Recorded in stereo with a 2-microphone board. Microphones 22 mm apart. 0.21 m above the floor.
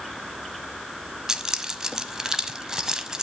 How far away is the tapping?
No tapping in this recording.